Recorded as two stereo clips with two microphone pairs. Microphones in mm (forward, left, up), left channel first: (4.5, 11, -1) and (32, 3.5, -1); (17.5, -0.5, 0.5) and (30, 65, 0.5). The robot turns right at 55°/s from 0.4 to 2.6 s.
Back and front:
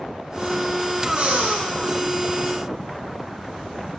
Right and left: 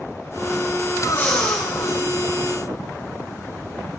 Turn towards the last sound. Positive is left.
turn(degrees=35)